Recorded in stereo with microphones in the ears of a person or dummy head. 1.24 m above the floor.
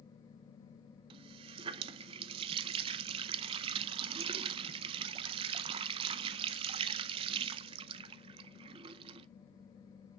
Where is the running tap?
30° right (ahead or behind), 0.5 m.